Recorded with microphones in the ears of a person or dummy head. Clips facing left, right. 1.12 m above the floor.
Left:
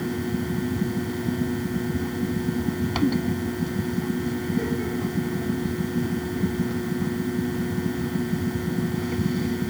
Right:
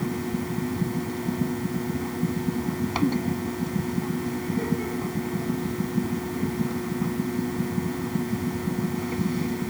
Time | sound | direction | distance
0.0 | a fan | 5° left (ahead or behind) | ?